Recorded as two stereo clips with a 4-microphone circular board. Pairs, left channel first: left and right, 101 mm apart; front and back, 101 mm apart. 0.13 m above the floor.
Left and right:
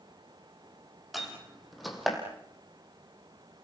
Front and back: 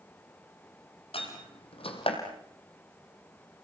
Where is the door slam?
Straight ahead, 3.5 m.